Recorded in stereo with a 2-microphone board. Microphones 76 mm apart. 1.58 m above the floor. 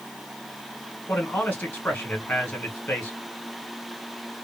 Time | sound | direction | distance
1.1 | a man speaking | 25° left (ahead or behind) | 1.5 m